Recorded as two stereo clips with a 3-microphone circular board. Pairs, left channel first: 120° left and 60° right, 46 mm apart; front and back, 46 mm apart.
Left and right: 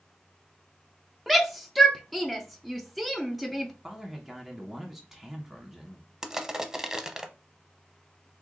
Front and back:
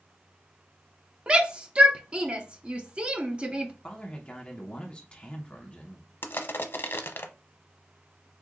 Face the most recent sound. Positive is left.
turn(degrees=15)